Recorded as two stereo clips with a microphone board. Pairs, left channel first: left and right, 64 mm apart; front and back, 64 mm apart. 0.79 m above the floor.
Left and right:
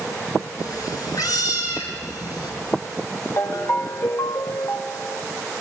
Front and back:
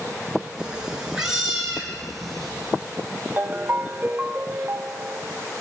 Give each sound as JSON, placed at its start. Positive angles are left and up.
{"t": 0.6, "sound": "a cat meowing", "azimuth_deg": 105, "distance_m": 4.5}
{"t": 3.4, "sound": "a ringtone", "azimuth_deg": 120, "distance_m": 1.0}